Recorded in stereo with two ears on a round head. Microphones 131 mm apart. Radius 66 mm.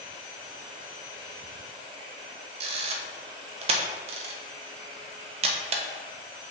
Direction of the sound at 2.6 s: 45° right (ahead or behind).